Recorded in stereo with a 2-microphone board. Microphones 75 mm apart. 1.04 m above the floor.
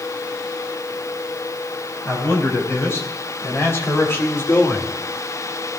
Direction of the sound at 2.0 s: 35° left (ahead or behind).